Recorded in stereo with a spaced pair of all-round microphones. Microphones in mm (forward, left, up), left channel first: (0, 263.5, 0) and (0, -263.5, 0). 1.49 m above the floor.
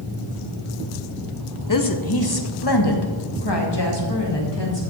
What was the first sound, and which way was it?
A woman speaking, 35° left (ahead or behind).